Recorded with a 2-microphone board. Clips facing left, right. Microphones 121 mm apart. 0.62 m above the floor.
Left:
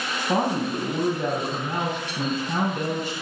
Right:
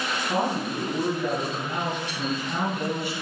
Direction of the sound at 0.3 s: 45° left (ahead or behind).